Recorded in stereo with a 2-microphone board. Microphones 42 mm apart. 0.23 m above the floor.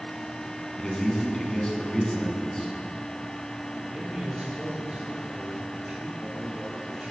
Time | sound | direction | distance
0.8 | a man speaking | 15° left (ahead or behind) | 2.5 m
3.7 | a man speaking | 35° right (ahead or behind) | 5 m